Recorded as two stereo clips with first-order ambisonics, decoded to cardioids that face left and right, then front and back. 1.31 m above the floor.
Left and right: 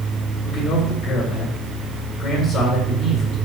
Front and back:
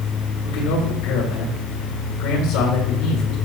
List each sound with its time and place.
0.4 s a man speaking: 20° left, 5 m